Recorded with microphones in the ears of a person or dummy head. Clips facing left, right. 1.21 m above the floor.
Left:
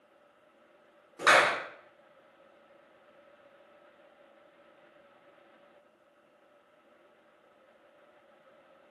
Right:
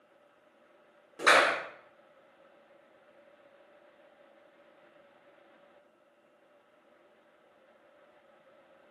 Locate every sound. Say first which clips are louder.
1.2 s a clap: even; 20° right (ahead or behind), 1.7 m